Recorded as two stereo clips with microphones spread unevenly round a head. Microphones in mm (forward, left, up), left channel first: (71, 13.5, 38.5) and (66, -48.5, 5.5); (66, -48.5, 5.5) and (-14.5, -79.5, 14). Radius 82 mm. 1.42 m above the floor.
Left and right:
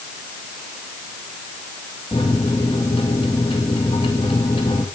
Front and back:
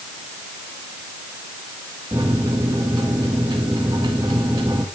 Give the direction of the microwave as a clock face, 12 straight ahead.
8 o'clock.